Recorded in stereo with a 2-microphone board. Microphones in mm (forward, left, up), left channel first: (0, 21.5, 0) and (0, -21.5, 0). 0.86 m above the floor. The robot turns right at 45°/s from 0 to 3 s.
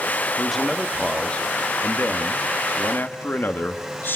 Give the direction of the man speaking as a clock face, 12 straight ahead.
12 o'clock.